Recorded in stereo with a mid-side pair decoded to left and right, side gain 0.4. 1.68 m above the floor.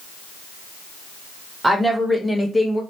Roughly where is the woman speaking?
Ahead.